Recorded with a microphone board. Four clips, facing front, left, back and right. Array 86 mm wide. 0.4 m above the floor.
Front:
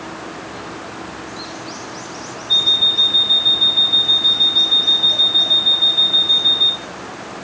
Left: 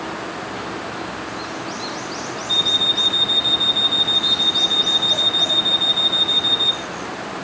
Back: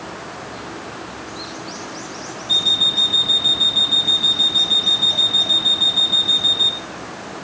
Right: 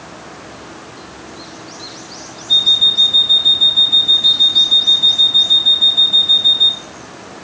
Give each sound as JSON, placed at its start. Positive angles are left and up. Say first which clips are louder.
{"t": 2.5, "sound": "an alarm clock", "louder": "even, front 2 dB", "azimuth_deg": 175, "distance_m": 1.3}